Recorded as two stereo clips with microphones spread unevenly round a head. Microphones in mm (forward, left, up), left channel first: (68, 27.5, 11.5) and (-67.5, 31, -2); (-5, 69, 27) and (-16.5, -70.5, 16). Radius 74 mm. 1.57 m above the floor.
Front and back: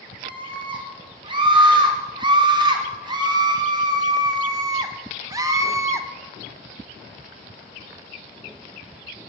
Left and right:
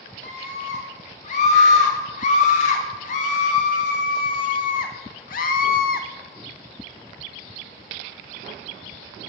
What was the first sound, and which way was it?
A scream, 125° left.